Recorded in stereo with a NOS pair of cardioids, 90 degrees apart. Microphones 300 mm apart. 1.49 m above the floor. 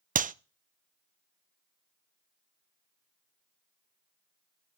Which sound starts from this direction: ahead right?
A clap, at 0.1 s.